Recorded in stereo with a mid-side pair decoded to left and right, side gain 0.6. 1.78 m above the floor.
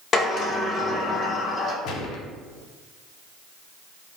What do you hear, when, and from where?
0.1 s a sliding door: 40° left, 0.9 m
1.9 s a gunshot: 70° left, 0.7 m